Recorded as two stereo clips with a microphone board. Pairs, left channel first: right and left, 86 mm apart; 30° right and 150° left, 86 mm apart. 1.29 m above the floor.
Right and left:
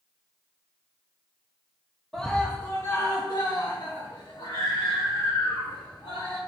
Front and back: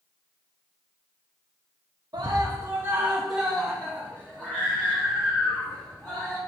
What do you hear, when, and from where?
2.1 s a scream: straight behind, 0.8 m; by 6.4 s 90° right, 3 m